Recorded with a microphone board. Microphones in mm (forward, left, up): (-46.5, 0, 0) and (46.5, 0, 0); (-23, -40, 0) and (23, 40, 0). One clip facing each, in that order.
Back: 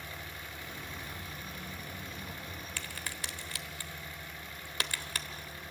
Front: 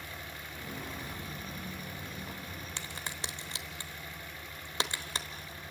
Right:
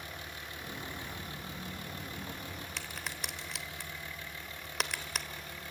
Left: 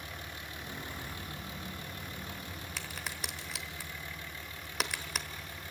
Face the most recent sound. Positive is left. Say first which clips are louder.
# front 2 dB, left 2 dB
turn(degrees=-25)